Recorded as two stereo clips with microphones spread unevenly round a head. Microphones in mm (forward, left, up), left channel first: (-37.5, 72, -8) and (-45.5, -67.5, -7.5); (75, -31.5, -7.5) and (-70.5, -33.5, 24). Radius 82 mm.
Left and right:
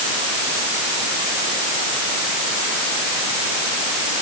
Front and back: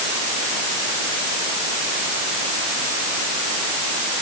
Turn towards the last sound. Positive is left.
No sound to turn to.